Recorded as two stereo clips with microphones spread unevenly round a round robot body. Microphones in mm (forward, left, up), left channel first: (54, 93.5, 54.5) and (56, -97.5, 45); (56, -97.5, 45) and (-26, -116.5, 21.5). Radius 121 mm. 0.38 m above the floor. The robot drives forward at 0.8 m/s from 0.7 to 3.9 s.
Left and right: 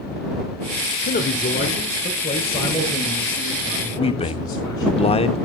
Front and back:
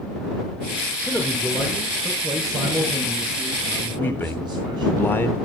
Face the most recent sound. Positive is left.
turn(degrees=85)